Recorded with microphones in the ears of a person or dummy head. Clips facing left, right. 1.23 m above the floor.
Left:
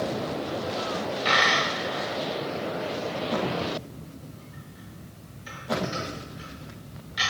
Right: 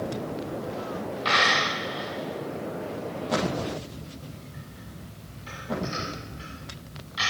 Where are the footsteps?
I don't hear footsteps.